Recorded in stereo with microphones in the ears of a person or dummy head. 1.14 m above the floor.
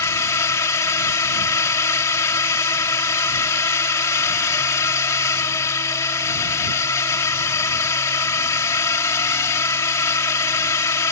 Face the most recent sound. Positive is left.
turn(degrees=15)  # may be behind; listen again after turning